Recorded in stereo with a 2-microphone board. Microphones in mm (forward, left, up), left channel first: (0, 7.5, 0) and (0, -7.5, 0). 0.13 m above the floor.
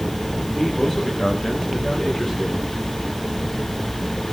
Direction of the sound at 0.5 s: 55° left (ahead or behind).